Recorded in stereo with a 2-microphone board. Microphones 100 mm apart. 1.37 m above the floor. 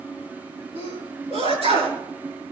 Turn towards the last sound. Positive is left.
turn(degrees=-90)